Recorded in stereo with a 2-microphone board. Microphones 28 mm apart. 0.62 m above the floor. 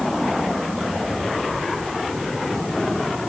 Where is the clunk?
No clunk in this recording.